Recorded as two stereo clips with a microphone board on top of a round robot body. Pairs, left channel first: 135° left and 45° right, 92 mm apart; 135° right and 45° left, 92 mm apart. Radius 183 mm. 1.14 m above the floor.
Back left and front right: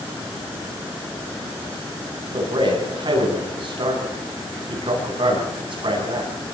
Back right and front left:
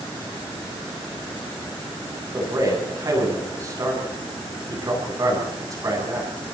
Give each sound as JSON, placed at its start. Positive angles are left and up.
{"t": 2.3, "sound": "a man speaking", "azimuth_deg": -10, "distance_m": 10.0}